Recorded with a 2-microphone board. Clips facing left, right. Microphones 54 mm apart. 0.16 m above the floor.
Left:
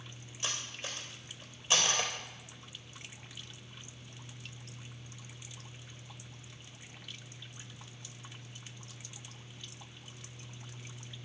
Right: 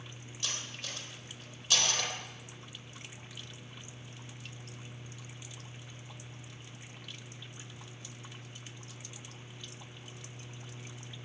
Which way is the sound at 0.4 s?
25° left (ahead or behind).